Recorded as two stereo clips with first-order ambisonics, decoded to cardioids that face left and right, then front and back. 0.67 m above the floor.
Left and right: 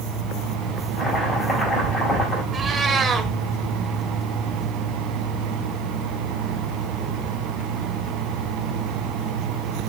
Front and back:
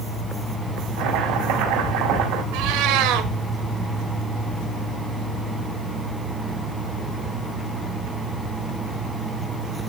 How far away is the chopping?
About 4.5 m.